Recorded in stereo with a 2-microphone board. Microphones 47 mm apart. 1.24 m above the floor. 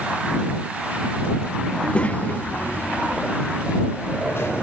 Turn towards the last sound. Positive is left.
turn(degrees=65)  # may be behind; listen again after turning